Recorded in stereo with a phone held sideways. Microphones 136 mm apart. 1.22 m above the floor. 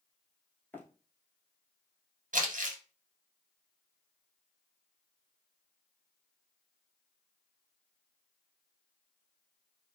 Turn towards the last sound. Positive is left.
turn(degrees=-70)  # may be behind; listen again after turning